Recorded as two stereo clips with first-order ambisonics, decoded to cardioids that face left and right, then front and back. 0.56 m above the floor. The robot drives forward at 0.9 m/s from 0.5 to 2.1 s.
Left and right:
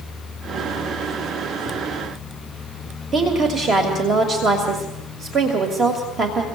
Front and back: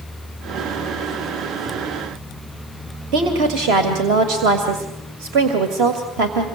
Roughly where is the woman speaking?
Behind right.